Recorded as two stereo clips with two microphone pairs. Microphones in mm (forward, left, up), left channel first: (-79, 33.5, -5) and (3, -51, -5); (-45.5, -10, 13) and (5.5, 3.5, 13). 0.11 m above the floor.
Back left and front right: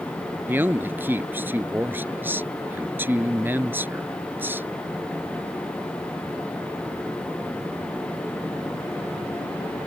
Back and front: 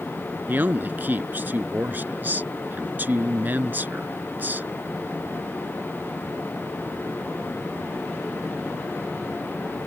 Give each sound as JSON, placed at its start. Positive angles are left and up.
{"t": 0.5, "sound": "a man speaking", "azimuth_deg": 10}